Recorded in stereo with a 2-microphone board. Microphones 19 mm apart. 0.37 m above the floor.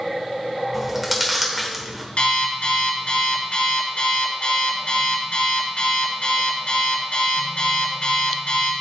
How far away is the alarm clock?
About 2.5 m.